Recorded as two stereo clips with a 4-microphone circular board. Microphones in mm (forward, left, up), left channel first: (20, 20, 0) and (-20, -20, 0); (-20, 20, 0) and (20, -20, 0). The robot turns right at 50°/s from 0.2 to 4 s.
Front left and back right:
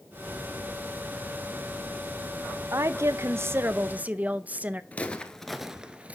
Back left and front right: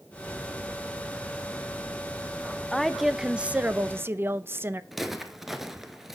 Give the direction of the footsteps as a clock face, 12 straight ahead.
11 o'clock.